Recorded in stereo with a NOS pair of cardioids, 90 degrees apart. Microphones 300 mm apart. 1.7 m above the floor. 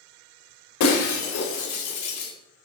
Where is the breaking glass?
65° left, 3.5 m.